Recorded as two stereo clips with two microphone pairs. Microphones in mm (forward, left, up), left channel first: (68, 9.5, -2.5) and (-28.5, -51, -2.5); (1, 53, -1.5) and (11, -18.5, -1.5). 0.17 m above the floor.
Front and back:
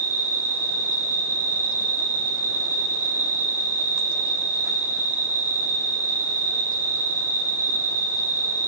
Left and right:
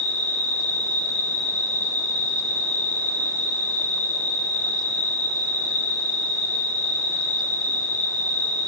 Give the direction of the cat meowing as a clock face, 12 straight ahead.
No cat meowing in this recording.